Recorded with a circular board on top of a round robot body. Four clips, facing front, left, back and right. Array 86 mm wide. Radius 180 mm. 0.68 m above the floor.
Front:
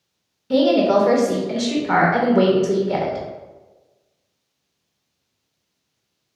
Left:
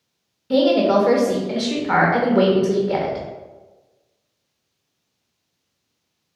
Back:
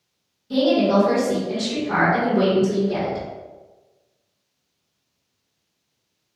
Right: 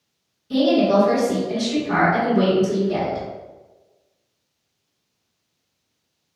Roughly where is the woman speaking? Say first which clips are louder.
Left 1 dB, front 2 dB; ahead left.